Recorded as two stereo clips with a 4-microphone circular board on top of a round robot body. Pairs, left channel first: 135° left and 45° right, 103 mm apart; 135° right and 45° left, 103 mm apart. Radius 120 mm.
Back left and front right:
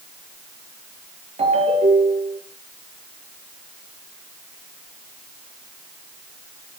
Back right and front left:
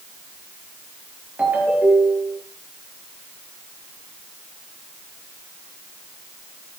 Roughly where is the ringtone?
Ahead right.